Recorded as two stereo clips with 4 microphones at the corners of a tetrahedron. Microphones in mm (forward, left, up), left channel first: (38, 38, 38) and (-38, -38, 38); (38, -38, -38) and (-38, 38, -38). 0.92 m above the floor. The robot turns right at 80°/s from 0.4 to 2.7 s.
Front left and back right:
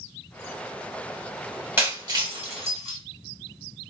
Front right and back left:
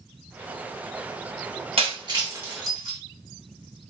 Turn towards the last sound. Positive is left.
turn(degrees=-130)